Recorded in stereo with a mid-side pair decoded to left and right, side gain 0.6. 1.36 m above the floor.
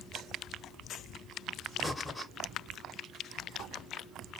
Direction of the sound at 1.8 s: 15° left.